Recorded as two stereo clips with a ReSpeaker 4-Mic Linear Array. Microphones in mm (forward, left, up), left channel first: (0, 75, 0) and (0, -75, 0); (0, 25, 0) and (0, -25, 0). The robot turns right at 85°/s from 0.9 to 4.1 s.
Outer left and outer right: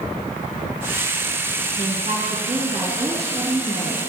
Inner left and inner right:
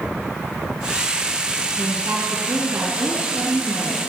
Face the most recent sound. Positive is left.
turn(degrees=55)